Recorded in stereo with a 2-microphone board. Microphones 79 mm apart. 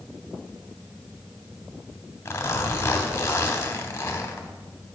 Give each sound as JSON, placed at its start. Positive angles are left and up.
{"t": 2.2, "sound": "a zipper", "side_deg": 35, "distance_m": 0.9}